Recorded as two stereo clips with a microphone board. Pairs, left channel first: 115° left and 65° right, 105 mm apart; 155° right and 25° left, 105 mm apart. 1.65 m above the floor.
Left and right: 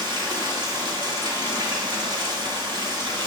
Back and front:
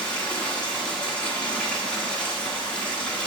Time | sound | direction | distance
0.0 | running water | 85° right | 1.4 m